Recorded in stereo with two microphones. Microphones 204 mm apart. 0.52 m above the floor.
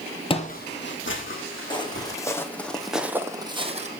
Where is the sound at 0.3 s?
25° left (ahead or behind), 0.9 m; by 2.1 s 80° left, 2.5 m.